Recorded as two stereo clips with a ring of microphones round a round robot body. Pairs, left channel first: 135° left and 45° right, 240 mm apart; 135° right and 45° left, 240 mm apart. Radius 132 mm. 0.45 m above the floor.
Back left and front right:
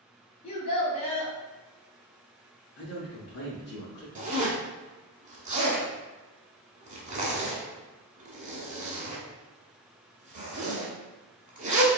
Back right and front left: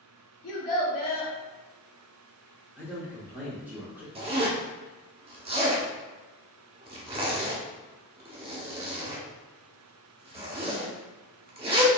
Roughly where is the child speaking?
Behind.